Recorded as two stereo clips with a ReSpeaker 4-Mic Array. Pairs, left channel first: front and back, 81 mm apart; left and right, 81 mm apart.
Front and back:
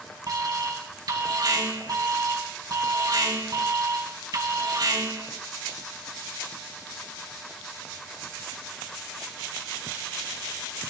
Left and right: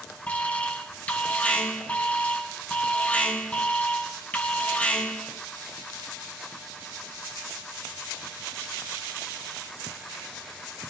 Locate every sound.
0.3 s an alarm: 155° left, 3 m